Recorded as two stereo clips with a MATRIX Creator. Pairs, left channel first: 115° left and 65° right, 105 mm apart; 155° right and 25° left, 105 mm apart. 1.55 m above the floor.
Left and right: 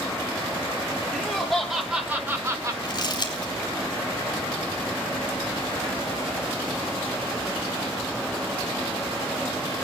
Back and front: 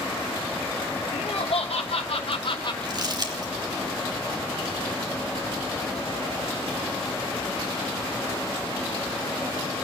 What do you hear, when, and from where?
1.1 s laughter: 160° right, 1.8 m; by 2.7 s 120° right, 1.1 m
2.8 s crumpling: 65° left, 3 m